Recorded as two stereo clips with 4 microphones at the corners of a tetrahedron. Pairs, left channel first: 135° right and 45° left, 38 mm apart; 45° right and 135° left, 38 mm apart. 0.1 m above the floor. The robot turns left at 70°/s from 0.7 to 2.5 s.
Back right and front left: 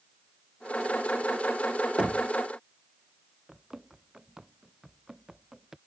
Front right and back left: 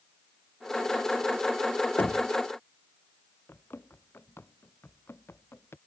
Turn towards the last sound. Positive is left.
turn(degrees=-35)